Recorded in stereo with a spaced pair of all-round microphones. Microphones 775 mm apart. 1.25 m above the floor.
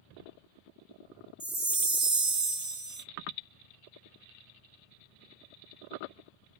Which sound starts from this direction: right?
A chime, at 1.4 s.